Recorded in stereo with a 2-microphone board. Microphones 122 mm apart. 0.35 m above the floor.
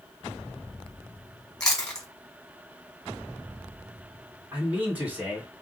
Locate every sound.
1.6 s chewing: 10° left (ahead or behind), 2 m
4.5 s a man speaking: 15° right (ahead or behind), 2.5 m